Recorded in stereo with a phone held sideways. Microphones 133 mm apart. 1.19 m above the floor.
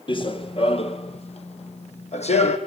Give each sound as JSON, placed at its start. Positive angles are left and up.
{"t": 0.1, "sound": "running footsteps", "side_deg": 35, "distance_m": 1.4}